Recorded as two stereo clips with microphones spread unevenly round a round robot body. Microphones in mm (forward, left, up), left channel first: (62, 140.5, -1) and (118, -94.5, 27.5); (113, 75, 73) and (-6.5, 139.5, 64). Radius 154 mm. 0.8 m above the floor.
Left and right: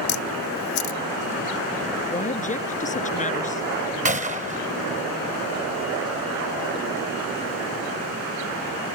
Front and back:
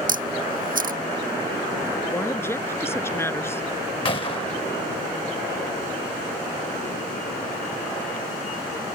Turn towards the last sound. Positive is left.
turn(degrees=-60)